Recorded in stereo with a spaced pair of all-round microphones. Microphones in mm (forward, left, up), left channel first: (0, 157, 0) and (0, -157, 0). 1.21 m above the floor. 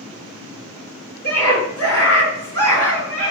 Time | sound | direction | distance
1.2 | a scream | 70° left (ahead or behind) | 3.5 m